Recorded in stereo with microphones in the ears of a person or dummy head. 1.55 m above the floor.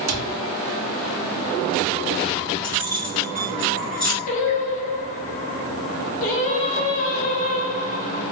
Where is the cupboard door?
80° right, 0.7 m.